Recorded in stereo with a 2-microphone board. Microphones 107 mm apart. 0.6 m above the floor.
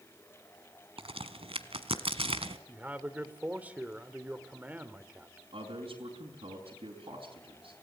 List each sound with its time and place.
1.0 s a crack: 70° right (ahead or behind), 1.2 m
2.7 s a man speaking: 15° right (ahead or behind), 1.5 m
5.5 s a man speaking: 70° right (ahead or behind), 4 m